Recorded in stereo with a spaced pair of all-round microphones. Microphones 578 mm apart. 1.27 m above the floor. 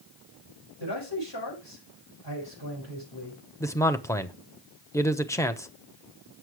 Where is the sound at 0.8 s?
45° left (ahead or behind), 6 m.